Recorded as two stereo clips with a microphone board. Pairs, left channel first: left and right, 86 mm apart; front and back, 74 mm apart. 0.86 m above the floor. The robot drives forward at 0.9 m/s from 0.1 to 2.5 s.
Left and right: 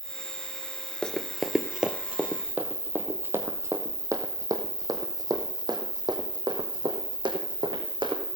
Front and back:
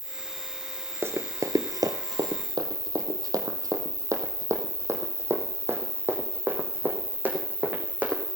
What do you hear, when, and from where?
0.0 s an insect: 10° right, 4 m; by 8.4 s 25° right, 1.7 m
1.0 s running footsteps: 160° left, 0.9 m; by 8.2 s 110° right, 3.5 m